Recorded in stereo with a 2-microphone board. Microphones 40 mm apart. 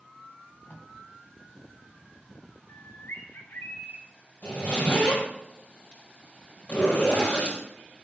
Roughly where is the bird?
Left.